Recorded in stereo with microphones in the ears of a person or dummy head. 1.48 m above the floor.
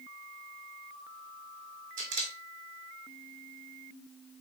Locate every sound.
2.0 s a camera shutter: 45° right (ahead or behind), 2.5 m